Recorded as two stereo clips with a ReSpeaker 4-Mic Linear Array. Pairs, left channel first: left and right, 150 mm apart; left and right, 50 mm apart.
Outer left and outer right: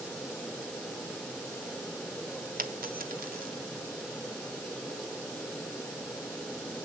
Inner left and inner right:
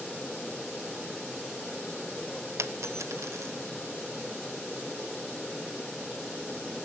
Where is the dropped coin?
75° right (ahead or behind), 1.3 m.